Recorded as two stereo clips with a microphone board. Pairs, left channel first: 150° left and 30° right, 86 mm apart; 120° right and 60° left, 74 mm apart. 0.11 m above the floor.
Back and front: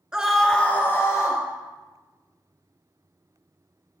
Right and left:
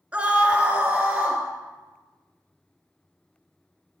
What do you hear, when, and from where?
0.1 s a scream: 30° left, 1.4 m; by 1.4 s 125° left, 1.9 m